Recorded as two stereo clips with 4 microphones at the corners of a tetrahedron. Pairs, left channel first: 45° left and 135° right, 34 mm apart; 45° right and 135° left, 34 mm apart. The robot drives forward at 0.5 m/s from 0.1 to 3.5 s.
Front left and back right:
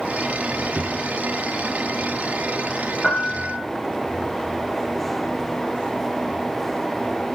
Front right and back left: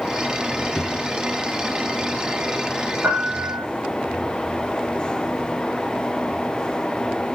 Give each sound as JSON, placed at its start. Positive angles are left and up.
{"t": 0.8, "sound": "a drawer", "azimuth_deg": -90, "distance_m": 2.5}
{"t": 3.0, "sound": "a piano", "azimuth_deg": 115, "distance_m": 4.5}